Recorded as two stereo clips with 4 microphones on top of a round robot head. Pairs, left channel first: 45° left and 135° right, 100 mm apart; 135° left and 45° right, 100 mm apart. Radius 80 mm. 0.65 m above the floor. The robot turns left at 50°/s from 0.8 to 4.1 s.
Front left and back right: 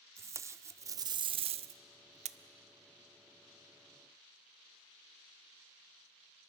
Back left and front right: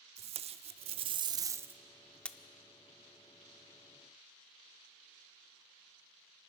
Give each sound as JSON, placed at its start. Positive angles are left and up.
{"t": 0.2, "sound": "tape being pulled", "azimuth_deg": -70, "distance_m": 0.5}